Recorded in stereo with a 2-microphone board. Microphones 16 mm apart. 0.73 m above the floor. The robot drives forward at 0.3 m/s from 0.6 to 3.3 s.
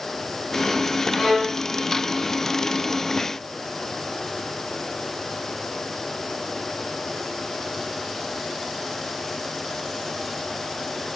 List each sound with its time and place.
1.1 s a violin: 40° left (ahead or behind), 1.3 m